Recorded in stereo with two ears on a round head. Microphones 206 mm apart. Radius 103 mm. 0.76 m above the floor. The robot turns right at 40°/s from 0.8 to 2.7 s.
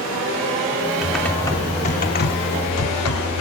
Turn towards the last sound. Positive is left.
turn(degrees=65)